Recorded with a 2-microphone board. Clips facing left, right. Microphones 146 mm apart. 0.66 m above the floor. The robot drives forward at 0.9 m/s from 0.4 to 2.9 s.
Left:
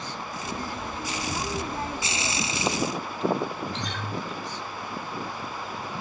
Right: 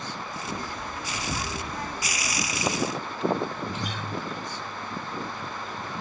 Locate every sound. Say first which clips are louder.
1.1 s whispering: left 1 dB; 35° right (ahead or behind), 1.1 m; by 1.5 s 45° right (ahead or behind), 0.9 m
3.7 s a guitar: even; 10° right (ahead or behind), 0.8 m